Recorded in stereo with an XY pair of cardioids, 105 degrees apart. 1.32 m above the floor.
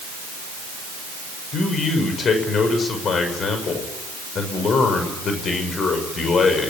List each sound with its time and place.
1.5 s a man speaking: 50° left, 6.5 m